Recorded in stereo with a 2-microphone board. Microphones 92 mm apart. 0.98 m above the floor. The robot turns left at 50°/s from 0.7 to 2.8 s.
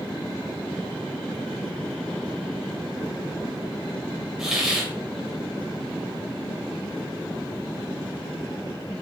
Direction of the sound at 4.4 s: 5° right (ahead or behind).